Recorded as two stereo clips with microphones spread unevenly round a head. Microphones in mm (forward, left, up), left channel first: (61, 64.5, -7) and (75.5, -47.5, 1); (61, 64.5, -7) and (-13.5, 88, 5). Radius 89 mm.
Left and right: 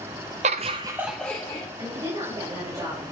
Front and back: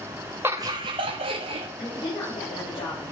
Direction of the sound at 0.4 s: 120° right.